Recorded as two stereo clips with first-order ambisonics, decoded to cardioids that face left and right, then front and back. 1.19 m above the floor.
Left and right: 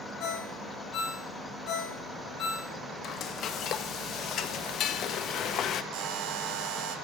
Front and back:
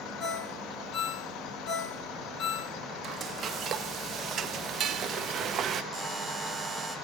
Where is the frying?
135° left, 0.5 m.